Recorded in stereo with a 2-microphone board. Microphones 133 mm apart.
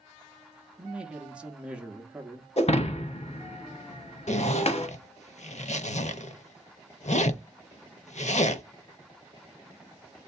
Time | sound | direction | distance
0.8 | a man speaking | 10° right (ahead or behind) | 0.7 m
2.6 | breaking glass | 55° left (ahead or behind) | 0.6 m
4.3 | a zipper | 60° left (ahead or behind) | 0.6 m